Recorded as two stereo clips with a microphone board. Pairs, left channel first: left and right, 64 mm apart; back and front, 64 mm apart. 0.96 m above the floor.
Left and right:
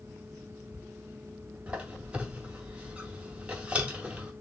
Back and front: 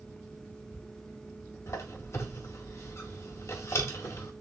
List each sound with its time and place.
1.7 s a squeak: 155° right, 0.7 m